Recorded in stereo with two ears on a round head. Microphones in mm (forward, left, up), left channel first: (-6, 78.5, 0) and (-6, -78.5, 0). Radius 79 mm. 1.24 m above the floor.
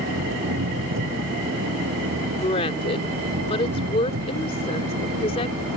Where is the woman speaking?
35° left (ahead or behind).